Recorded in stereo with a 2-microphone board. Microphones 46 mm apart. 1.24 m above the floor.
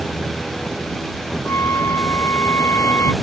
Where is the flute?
70° left (ahead or behind).